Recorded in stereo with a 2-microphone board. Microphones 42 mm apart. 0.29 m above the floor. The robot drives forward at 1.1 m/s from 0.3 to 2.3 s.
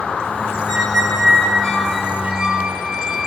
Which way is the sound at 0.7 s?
5° left (ahead or behind).